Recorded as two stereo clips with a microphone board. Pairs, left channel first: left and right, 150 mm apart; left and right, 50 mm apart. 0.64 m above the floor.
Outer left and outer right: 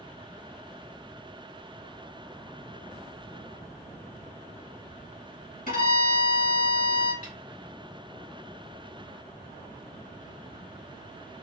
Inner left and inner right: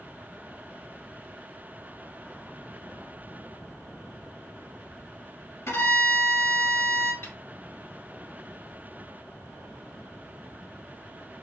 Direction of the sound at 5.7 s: 65° left (ahead or behind).